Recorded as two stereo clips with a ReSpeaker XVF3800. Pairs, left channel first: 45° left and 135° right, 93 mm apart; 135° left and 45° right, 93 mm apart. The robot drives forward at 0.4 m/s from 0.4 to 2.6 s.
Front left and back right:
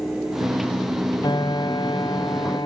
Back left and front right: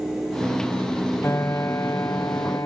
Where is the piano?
75° left; by 2.7 s 85° left.